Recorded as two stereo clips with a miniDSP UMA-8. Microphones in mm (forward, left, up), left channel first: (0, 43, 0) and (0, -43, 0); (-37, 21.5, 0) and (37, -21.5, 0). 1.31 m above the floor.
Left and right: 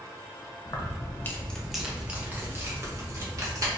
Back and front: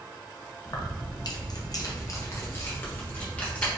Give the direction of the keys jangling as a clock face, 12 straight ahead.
8 o'clock.